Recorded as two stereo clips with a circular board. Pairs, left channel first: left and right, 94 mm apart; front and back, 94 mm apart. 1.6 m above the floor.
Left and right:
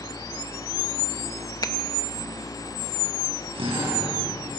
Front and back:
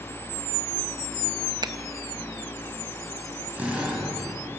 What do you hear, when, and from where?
1.6 s a finger snap: 140° left, 1.0 m
3.5 s a drill: 105° right, 8 m